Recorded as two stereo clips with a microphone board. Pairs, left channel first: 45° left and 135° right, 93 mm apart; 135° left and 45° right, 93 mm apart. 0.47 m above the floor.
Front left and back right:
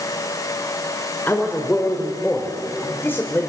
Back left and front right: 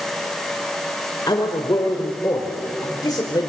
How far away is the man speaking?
About 1.9 m.